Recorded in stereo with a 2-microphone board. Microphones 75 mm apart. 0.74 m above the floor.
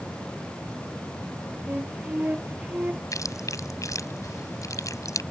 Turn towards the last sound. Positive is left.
turn(degrees=45)  # may be behind; listen again after turning